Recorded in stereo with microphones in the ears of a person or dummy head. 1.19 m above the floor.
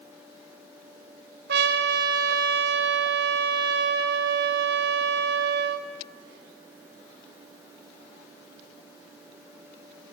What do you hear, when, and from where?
1.5 s a trumpet: 60° right (ahead or behind), 2.5 m